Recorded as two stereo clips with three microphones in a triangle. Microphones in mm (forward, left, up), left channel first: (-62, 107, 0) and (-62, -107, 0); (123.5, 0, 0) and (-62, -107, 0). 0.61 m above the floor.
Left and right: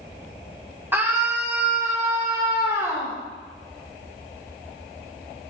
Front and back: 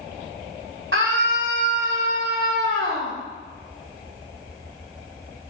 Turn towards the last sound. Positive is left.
turn(degrees=-165)